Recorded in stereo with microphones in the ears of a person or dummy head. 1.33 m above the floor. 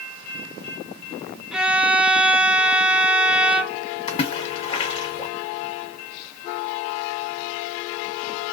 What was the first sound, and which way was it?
A violin, centre (ahead or behind).